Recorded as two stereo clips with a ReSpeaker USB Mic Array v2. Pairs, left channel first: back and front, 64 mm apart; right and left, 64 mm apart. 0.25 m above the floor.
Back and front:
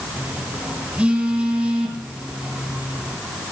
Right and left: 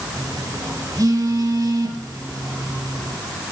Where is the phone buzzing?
70° left, 3.5 m.